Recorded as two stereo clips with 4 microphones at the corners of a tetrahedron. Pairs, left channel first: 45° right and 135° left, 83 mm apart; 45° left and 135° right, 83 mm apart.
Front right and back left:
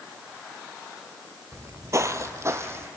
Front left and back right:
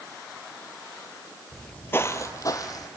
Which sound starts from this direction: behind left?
Footsteps, at 1.5 s.